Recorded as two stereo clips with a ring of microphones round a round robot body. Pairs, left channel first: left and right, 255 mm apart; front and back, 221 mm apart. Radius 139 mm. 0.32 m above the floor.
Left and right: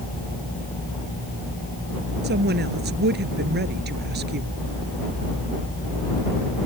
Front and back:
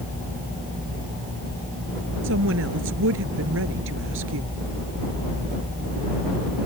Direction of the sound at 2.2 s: 140° right.